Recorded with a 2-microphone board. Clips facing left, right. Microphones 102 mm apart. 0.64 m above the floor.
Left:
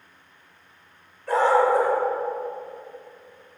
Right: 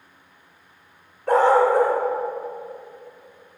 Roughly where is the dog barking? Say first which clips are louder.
Right 3 dB; right.